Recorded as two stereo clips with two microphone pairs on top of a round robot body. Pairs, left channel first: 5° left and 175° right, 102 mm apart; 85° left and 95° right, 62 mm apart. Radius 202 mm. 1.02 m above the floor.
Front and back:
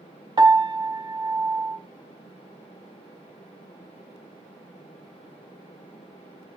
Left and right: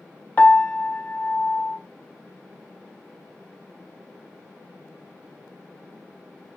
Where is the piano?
140° left, 0.5 m.